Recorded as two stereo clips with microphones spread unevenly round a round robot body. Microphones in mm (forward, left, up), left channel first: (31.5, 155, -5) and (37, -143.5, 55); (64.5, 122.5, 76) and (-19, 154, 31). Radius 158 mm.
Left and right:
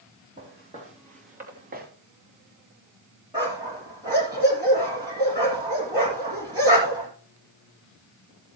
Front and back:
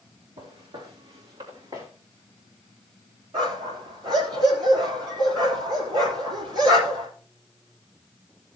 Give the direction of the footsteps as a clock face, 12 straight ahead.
5 o'clock.